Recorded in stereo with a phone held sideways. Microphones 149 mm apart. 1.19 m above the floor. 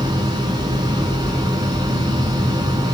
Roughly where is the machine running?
Right.